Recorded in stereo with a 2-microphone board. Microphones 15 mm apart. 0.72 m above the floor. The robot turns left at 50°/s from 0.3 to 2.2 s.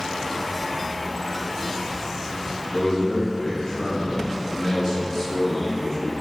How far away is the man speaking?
About 1.2 m.